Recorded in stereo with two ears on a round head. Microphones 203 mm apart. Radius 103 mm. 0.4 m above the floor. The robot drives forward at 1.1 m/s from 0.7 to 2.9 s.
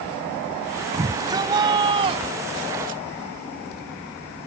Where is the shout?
15° right (ahead or behind); by 3.0 s 35° right (ahead or behind).